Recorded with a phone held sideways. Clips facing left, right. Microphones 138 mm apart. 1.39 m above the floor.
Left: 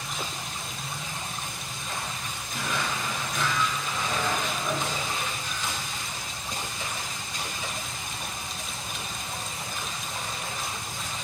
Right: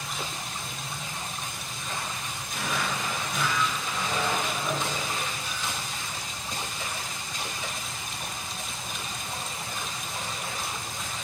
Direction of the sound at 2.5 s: 10° right (ahead or behind).